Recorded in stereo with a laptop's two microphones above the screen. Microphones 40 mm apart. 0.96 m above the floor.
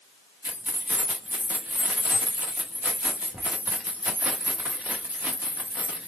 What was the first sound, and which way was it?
Keys jangling, 40° right (ahead or behind).